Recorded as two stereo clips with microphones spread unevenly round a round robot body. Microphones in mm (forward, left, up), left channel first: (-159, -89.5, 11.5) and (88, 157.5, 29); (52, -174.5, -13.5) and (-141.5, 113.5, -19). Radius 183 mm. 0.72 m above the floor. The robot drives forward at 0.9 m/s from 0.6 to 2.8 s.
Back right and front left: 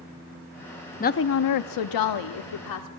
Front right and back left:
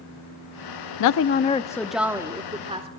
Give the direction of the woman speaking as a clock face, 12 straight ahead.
2 o'clock.